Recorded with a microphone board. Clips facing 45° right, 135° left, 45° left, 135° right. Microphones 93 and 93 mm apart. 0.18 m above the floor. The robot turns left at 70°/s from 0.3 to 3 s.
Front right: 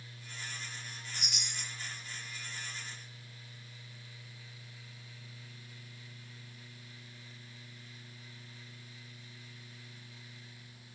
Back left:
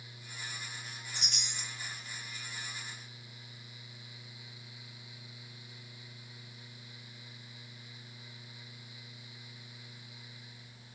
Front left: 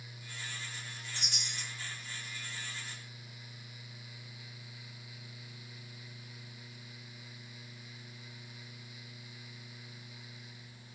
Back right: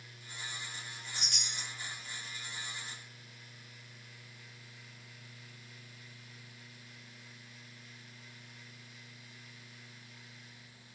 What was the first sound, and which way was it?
A chime, 40° left.